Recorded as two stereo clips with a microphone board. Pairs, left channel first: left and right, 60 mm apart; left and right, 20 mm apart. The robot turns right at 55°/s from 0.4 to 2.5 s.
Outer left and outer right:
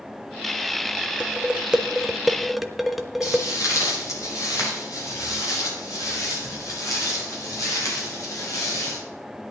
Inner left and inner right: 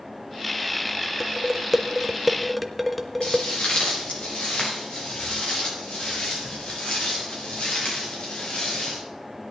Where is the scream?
No scream in this recording.